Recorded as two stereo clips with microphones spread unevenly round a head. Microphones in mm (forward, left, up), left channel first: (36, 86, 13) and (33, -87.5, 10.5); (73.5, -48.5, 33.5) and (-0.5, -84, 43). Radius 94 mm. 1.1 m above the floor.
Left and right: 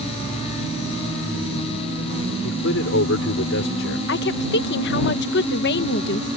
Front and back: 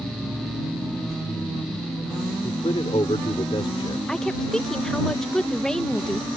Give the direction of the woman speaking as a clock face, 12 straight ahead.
8 o'clock.